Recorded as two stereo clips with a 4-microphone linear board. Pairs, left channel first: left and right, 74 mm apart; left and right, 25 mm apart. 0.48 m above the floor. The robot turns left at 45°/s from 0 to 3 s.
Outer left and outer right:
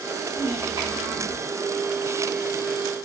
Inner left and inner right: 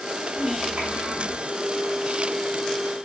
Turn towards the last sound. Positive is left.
turn(degrees=170)